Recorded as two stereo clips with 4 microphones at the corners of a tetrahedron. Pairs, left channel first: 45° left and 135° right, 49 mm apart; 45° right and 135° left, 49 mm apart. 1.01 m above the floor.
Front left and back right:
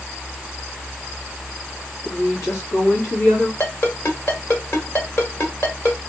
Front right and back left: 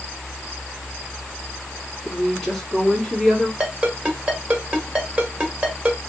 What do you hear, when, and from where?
2.0 s a woman speaking: 25° left, 2 m; by 3.5 s 45° left, 2.5 m
3.6 s a ringtone: 70° left, 1.5 m